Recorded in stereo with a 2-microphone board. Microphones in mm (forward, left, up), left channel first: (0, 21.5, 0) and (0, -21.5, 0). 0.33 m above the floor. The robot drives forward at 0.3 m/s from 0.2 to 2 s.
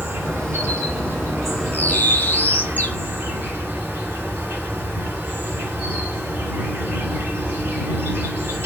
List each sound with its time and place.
0.0 s an insect: 70° right (ahead or behind), 2.0 m; by 8.7 s 60° right (ahead or behind), 2 m
1.7 s a bird: 45° left (ahead or behind), 0.7 m